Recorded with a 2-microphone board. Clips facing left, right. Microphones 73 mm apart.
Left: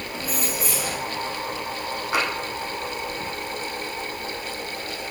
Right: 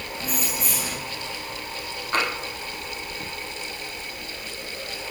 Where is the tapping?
10° left (ahead or behind), 3 m.